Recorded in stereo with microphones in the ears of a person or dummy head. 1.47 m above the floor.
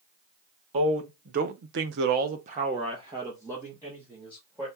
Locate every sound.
0.7 s a man speaking: 40° right (ahead or behind), 1.1 m; by 4.7 s 5° right (ahead or behind), 2 m